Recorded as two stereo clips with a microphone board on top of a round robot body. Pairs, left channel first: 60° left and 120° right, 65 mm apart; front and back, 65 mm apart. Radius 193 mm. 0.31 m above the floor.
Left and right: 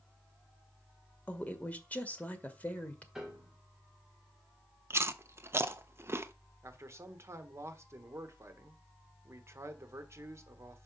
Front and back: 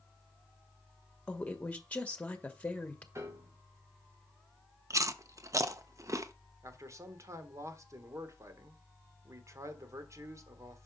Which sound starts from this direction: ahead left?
A woman speaking, at 1.3 s.